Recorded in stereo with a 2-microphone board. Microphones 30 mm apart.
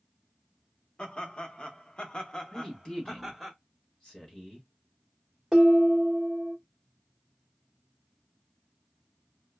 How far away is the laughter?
About 0.9 m.